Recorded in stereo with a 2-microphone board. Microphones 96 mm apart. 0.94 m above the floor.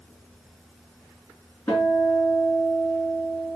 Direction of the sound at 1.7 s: 20° left (ahead or behind).